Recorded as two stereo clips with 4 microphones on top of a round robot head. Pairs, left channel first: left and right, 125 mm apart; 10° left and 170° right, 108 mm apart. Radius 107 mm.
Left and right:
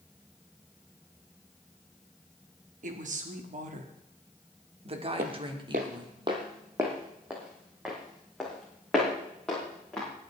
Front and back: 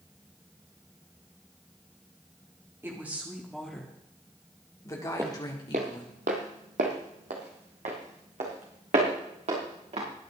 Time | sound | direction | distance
2.8 | a woman speaking | 95° right | 2 m
5.2 | footsteps | 95° right | 1.3 m